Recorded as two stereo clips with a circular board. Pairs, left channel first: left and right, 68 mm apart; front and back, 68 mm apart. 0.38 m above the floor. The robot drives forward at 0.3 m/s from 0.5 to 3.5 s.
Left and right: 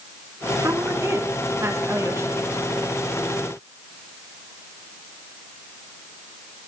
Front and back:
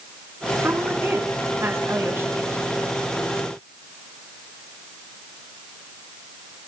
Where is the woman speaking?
130° right, 5 m; by 2.9 s 135° right, 5.5 m.